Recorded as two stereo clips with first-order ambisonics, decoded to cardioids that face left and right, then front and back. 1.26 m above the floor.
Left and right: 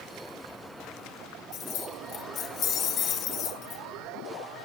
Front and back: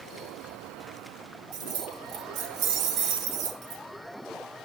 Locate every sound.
1.5 s keys jangling: 145° left, 1.4 m